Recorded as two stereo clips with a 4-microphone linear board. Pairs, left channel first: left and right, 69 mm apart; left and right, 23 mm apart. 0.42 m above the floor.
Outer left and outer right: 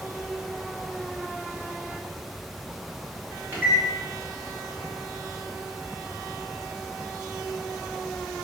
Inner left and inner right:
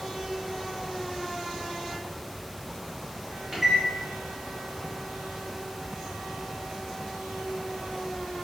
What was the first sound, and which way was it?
A microwave, 30° right (ahead or behind).